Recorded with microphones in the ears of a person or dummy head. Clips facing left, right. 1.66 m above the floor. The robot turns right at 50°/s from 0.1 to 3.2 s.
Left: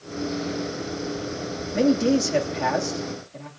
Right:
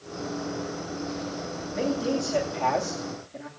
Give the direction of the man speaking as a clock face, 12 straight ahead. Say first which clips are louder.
Left 7 dB; 8 o'clock.